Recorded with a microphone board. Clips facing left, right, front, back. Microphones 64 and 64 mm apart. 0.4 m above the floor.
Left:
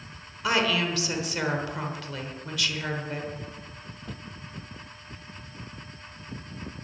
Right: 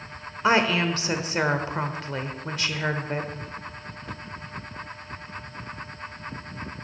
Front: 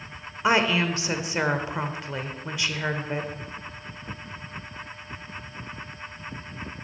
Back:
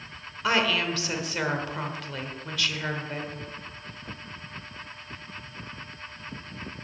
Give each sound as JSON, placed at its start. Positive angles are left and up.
{"t": 0.4, "sound": "a woman speaking", "azimuth_deg": -55, "distance_m": 1.2}